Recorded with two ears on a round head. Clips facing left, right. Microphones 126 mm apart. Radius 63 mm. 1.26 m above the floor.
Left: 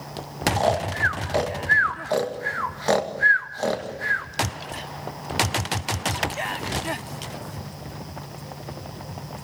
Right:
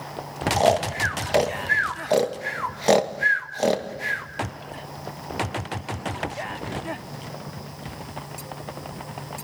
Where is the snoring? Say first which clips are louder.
Right 4 dB; 25° right (ahead or behind), 1.9 m.